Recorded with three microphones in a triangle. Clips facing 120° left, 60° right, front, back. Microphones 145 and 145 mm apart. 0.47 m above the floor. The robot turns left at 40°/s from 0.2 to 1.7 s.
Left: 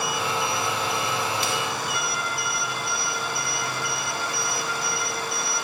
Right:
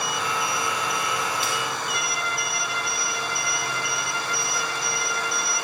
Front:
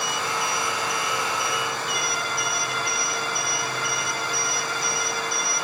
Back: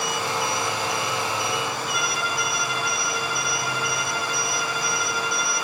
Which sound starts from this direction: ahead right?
A violin, at 1.9 s.